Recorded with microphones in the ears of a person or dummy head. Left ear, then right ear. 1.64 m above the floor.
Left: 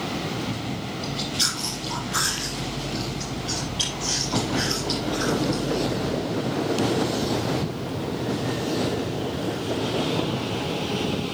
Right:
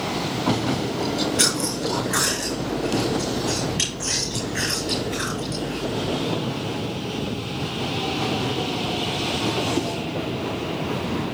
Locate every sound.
1.0 s chewing: 30° right (ahead or behind), 4.5 m